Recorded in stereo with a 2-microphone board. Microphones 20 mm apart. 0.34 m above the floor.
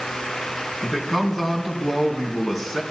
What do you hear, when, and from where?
0.8 s a man speaking: 20° left (ahead or behind), 3 m